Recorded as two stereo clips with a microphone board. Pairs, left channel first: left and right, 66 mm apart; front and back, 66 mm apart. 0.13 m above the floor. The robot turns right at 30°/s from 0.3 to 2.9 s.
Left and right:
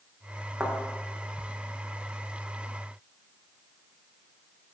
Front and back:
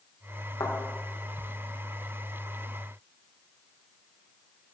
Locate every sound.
0.6 s a thud: 5° right, 4 m; by 0.8 s straight ahead, 4 m